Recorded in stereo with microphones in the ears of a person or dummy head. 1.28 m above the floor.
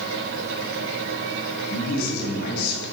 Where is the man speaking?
60° left (ahead or behind), 2 m.